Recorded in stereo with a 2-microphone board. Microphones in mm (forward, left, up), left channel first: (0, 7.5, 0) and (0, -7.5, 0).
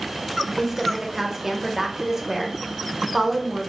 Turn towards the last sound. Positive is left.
turn(degrees=-30)  # may be behind; listen again after turning